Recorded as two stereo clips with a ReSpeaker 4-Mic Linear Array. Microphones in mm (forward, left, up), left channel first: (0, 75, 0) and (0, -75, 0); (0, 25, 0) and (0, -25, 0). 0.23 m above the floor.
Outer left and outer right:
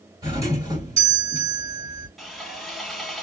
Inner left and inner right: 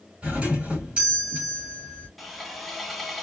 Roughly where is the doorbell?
Right.